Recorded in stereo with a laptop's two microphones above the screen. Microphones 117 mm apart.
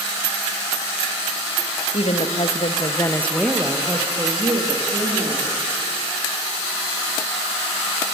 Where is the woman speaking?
65° left (ahead or behind), 1.6 m; by 5.5 s 50° right (ahead or behind), 3 m.